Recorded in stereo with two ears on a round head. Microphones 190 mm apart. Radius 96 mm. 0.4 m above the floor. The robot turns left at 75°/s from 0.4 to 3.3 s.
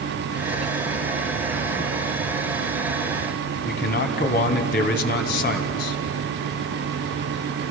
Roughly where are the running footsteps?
No running footsteps in this recording.